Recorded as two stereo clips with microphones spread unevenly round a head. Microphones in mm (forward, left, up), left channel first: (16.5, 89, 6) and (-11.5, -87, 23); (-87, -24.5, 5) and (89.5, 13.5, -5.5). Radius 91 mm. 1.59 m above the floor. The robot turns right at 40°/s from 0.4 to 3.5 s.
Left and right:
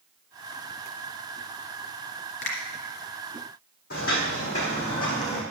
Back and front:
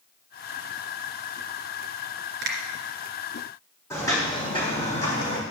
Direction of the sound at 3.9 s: 120° left.